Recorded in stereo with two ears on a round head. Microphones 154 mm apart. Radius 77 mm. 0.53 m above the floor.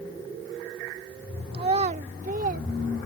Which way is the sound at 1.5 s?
30° right (ahead or behind).